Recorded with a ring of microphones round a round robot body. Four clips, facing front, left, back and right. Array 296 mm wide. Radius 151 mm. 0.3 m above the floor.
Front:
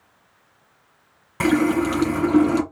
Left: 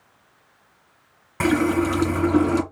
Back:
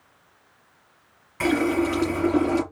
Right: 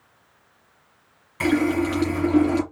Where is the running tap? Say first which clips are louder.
Left 1 dB, front 3 dB; 45° left, 2.5 m.